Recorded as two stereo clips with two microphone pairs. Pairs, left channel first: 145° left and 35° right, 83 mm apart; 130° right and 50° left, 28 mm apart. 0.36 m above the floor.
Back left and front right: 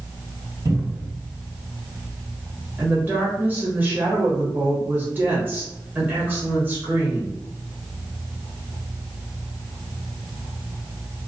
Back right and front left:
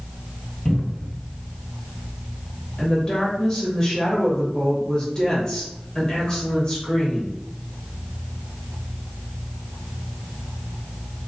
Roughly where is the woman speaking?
Right.